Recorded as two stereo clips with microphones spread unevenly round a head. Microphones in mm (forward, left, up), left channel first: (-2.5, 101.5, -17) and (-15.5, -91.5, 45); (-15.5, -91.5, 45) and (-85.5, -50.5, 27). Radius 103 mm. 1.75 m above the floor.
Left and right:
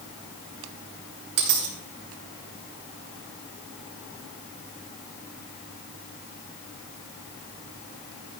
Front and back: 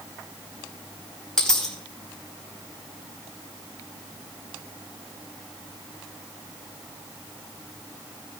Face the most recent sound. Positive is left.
turn(degrees=-105)